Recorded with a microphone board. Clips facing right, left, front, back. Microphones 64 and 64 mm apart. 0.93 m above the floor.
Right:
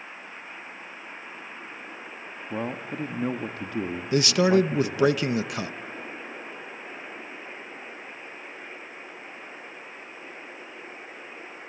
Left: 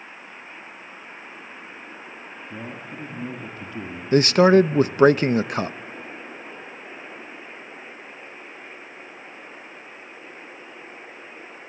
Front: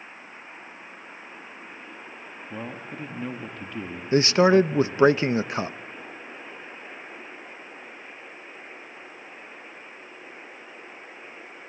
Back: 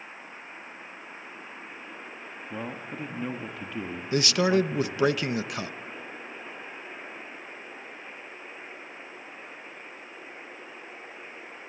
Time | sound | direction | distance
2.5 | a man speaking | 95° right | 1.3 m
4.1 | a man speaking | 55° left | 0.5 m